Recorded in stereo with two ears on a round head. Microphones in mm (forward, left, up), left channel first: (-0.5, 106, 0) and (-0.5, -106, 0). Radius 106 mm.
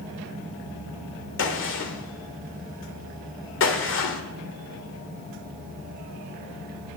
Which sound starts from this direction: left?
A gunshot, at 1.4 s.